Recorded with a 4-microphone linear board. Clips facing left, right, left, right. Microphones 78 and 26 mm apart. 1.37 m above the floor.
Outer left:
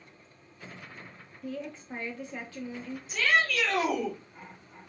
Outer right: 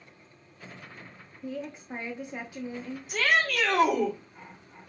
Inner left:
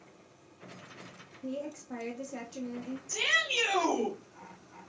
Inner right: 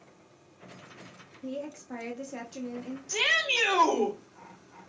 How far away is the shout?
About 3.5 m.